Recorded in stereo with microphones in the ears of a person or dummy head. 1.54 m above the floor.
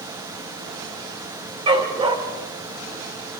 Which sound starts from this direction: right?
A dog barking, at 1.7 s.